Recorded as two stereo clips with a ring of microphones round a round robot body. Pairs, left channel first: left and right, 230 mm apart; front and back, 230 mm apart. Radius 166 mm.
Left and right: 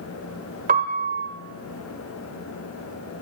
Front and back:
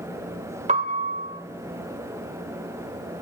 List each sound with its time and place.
0.7 s a piano: 130° right, 1.4 m